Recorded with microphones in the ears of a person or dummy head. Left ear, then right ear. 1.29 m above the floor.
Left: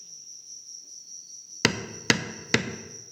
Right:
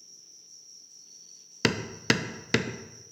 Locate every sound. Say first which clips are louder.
0.0 s an insect: left 7 dB; 40° left (ahead or behind), 5.5 m
1.6 s hammering: left 2 dB; 5° left (ahead or behind), 0.5 m